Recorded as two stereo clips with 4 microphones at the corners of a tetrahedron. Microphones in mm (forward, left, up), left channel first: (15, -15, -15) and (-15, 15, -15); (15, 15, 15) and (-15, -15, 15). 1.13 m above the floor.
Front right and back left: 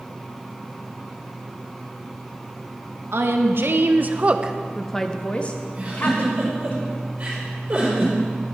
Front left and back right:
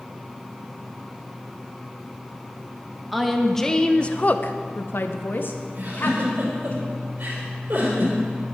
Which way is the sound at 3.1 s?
135° left.